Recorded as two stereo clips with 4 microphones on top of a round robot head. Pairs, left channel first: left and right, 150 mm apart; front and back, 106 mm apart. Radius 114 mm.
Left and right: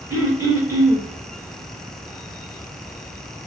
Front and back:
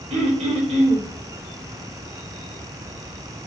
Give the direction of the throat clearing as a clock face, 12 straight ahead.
5 o'clock.